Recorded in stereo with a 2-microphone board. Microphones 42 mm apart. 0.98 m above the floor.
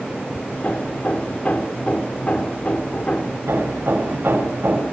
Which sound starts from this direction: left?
Hammering, at 0.5 s.